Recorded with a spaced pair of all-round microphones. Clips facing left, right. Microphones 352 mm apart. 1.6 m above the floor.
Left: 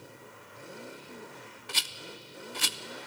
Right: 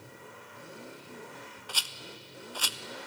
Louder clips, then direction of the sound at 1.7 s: Left 4 dB; 35° left (ahead or behind).